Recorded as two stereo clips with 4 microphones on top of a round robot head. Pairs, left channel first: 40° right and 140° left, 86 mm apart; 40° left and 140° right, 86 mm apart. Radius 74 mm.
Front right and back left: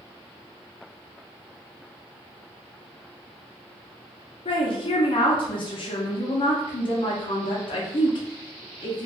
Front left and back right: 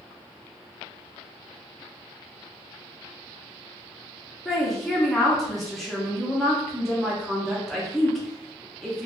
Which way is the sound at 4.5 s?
50° right.